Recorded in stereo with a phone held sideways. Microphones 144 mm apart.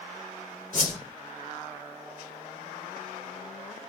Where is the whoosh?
60° left (ahead or behind), 4 m.